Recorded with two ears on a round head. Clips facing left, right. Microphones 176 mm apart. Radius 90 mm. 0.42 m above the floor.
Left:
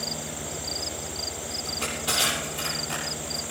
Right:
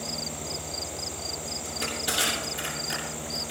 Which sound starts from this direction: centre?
Crushing, at 1.6 s.